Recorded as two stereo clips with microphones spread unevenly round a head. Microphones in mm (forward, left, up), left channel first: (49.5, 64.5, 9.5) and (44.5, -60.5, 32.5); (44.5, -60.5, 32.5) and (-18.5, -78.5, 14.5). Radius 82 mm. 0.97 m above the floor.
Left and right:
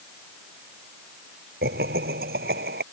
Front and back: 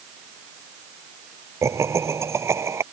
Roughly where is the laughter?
Behind right.